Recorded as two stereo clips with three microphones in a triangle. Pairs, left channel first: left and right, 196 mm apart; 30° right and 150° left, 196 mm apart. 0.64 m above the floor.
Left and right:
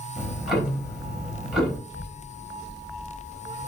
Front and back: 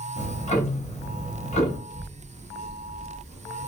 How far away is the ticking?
About 0.8 m.